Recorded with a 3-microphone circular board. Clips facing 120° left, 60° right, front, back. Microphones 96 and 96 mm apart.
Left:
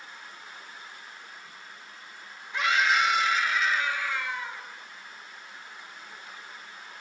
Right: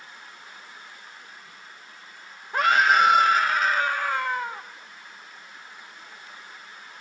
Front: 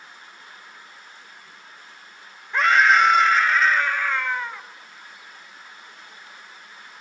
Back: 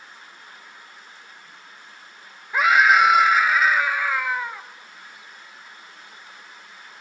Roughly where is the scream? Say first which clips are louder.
Right 6 dB, back 1 dB; right.